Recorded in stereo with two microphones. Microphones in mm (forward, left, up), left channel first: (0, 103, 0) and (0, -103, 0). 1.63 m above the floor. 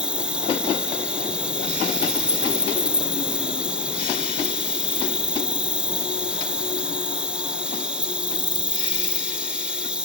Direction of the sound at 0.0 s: 5° right (ahead or behind).